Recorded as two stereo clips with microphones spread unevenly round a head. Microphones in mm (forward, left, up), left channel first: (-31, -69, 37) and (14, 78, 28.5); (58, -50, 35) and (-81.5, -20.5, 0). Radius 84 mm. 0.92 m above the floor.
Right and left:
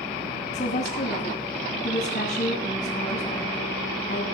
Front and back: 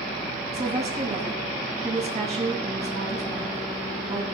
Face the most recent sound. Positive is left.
turn(degrees=-155)